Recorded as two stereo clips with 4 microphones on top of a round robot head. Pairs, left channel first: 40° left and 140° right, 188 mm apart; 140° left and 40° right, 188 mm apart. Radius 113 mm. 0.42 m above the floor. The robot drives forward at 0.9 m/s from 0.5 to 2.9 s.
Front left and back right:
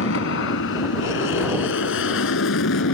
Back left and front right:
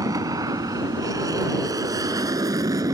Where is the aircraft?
30° left.